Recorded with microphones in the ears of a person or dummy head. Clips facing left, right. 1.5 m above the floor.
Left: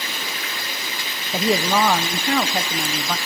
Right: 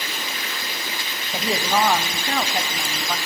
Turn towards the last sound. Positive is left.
turn(degrees=60)  # may be behind; listen again after turning